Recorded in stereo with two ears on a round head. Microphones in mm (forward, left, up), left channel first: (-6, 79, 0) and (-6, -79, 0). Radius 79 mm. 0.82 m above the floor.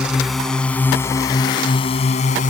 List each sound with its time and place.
0.0 s a drone: 5° right (ahead or behind); by 2.5 s 45° left (ahead or behind)